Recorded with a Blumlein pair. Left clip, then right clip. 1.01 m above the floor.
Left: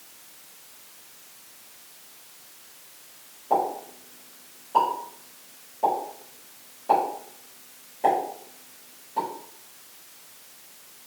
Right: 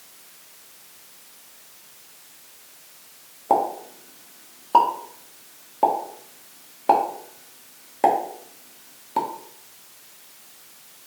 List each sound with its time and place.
3.5 s a pop: 55° right, 1.3 m